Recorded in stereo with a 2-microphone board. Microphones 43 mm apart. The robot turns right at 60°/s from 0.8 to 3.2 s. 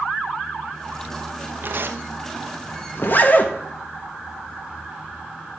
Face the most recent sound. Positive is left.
turn(degrees=40)  # may be behind; listen again after turning